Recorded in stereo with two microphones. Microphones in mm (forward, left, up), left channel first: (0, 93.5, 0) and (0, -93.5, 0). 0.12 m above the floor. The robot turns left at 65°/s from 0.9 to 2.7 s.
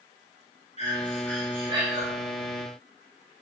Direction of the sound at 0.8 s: 35° left.